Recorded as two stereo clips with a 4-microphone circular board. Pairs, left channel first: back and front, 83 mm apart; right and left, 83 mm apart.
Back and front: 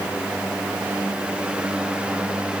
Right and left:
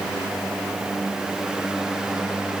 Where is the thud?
I don't hear a thud.